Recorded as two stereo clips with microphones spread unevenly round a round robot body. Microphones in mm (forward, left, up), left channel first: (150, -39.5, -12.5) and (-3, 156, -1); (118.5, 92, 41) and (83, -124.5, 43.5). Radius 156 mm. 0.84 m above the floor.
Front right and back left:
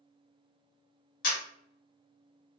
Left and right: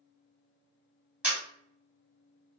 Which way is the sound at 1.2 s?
15° right.